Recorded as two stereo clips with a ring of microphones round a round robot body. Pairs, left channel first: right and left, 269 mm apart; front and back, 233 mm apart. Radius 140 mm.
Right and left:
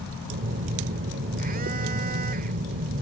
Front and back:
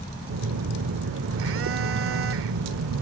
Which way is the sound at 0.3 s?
150° left.